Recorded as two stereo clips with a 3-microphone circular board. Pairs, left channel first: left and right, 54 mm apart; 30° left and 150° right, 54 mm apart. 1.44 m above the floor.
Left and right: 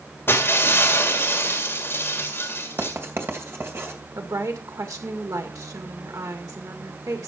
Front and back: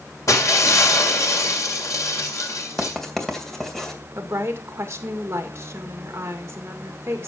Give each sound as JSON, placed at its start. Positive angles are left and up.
{"t": 0.3, "sound": "breaking glass", "azimuth_deg": 45, "distance_m": 2.0}
{"t": 2.8, "sound": "writing", "azimuth_deg": -55, "distance_m": 2.5}
{"t": 4.2, "sound": "a woman speaking", "azimuth_deg": -110, "distance_m": 2.0}